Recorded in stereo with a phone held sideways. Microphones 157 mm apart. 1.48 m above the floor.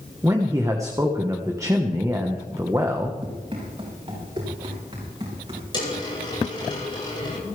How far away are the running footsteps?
About 8.5 m.